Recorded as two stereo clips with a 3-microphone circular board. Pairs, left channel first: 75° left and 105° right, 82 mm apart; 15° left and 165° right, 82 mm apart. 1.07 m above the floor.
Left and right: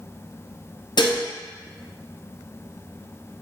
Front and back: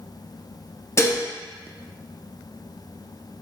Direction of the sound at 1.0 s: 70° left.